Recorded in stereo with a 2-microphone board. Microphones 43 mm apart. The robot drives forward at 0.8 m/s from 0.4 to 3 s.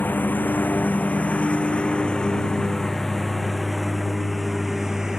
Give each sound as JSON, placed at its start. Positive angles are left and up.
{"t": 0.0, "sound": "a lawn mower", "side_deg": 45}